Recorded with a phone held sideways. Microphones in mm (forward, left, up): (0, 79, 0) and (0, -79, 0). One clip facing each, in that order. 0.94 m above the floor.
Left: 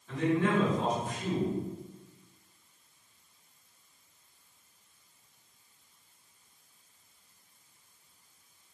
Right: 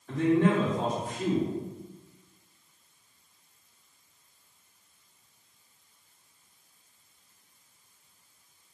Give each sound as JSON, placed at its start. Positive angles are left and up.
{"t": 0.1, "sound": "a man speaking", "side_deg": -50, "distance_m": 1.8}